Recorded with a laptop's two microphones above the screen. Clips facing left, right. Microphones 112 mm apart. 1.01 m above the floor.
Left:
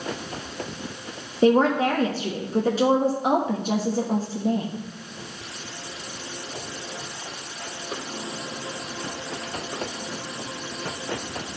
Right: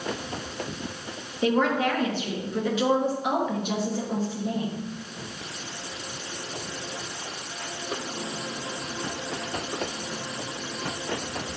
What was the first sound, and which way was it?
A woman speaking, 35° left (ahead or behind).